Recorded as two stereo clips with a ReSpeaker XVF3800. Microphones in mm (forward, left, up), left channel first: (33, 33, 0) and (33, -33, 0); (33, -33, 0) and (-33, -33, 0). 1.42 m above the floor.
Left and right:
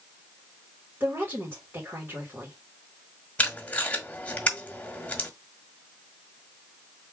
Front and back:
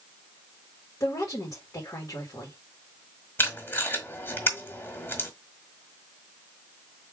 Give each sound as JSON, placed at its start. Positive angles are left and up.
{"t": 1.0, "sound": "a woman speaking", "azimuth_deg": -35, "distance_m": 2.5}
{"t": 3.4, "sound": "tape being pulled", "azimuth_deg": 30, "distance_m": 1.5}